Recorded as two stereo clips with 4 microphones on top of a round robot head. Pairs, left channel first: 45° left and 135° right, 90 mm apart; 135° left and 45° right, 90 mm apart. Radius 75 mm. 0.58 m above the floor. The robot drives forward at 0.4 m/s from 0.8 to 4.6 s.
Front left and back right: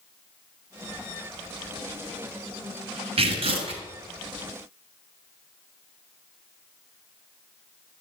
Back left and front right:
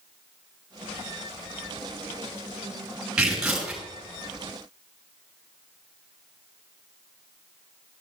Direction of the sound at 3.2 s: 125° right.